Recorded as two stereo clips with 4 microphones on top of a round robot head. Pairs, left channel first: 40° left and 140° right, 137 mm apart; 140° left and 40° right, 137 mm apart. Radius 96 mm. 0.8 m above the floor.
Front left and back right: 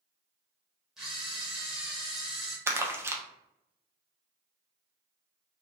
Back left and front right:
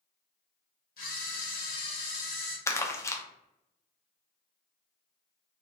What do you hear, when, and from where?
1.0 s a camera shutter: 135° left, 1.1 m
2.7 s crumpling: 175° left, 0.6 m